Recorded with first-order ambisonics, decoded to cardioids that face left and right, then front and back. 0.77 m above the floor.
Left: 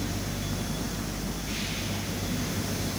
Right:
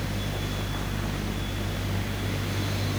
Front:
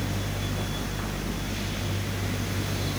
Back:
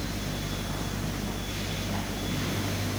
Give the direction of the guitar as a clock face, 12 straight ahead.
No guitar in this recording.